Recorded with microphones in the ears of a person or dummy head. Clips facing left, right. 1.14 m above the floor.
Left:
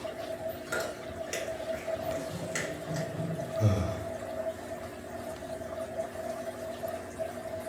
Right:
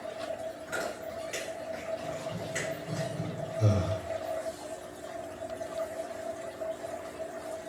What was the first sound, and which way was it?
Chewing, 60° left (ahead or behind).